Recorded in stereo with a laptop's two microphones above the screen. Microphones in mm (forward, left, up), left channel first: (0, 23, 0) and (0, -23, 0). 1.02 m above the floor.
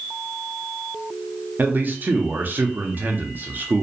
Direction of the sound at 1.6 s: 40° right (ahead or behind).